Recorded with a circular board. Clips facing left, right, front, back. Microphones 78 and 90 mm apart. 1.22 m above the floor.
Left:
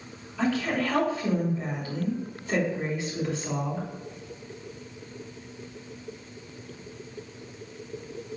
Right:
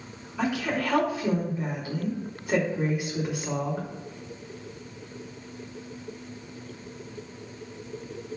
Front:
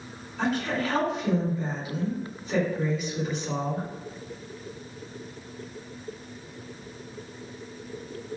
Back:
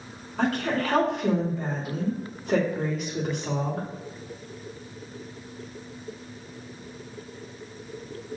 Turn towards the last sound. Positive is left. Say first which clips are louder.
# left 1 dB, back 2 dB
turn(degrees=-165)